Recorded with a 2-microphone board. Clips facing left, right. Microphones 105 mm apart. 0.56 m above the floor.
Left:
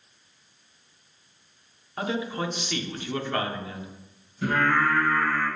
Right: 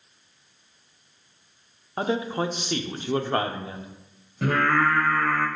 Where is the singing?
70° right (ahead or behind), 1.8 m.